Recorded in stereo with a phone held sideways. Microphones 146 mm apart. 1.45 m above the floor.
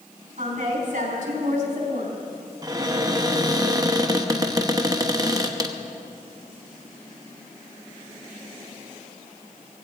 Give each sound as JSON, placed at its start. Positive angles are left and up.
{"t": 0.4, "sound": "a woman speaking", "side_deg": -55, "distance_m": 4.5}
{"t": 2.6, "sound": "a cupboard door", "side_deg": -25, "distance_m": 1.0}